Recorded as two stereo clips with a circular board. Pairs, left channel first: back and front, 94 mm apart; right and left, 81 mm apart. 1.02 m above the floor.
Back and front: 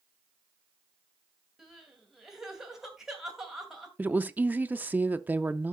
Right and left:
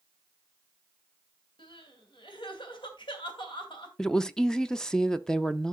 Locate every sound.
1.6 s crying: 85° right, 2.5 m
4.0 s a woman speaking: 25° right, 0.6 m